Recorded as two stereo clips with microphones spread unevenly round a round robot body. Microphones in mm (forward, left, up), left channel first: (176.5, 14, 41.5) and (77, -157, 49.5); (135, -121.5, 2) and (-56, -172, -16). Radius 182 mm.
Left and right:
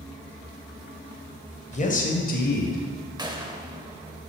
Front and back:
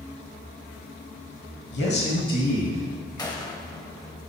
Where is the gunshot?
55° right, 1.4 m.